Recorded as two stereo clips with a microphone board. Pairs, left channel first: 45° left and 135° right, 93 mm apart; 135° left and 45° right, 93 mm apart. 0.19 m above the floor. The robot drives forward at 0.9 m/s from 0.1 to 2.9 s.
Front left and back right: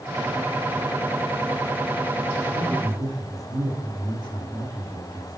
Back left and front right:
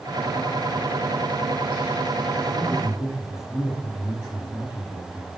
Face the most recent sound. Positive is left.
turn(degrees=-150)